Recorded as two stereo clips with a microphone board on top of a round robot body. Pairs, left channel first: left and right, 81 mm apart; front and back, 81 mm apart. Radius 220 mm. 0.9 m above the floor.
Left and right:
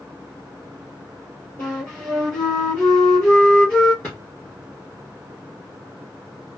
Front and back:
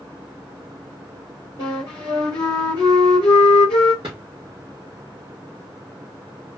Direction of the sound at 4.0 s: 160° left.